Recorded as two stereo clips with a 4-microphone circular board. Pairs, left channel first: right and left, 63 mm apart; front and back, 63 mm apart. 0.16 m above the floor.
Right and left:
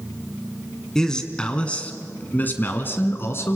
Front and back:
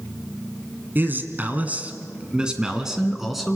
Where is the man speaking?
165° right, 1.8 m; by 3.6 s 90° right, 2.0 m.